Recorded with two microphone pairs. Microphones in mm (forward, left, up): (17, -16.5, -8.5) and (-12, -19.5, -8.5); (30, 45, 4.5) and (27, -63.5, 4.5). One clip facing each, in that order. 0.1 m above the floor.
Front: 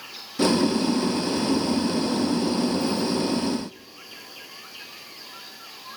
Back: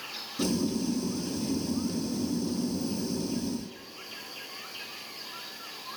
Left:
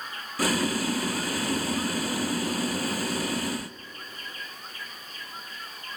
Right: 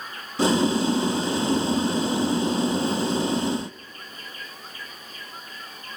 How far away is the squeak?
No squeak in this recording.